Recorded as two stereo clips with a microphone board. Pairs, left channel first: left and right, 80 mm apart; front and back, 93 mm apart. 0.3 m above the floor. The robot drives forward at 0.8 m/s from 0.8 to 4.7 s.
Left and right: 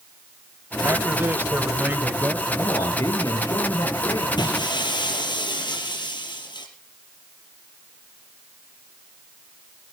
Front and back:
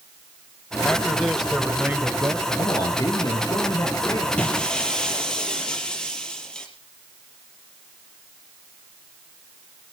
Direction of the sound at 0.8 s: 65° right.